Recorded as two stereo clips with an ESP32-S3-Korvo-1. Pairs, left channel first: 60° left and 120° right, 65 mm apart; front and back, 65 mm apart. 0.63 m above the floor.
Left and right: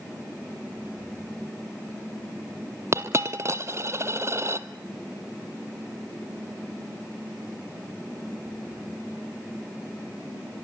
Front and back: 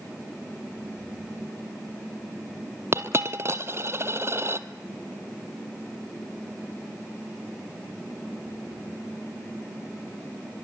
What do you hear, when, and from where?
2.9 s a dropped coin: 150° right, 0.9 m